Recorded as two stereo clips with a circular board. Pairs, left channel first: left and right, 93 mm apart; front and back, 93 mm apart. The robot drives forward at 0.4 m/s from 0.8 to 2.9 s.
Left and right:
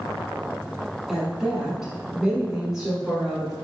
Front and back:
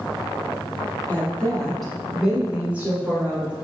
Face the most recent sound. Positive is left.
turn(degrees=-160)